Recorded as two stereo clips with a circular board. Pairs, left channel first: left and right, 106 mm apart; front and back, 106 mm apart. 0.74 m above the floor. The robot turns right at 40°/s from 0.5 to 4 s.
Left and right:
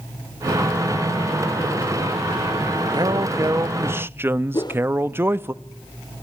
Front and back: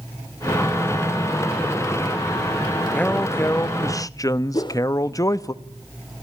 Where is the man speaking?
75° right, 0.6 m; by 5.5 s 35° right, 0.6 m.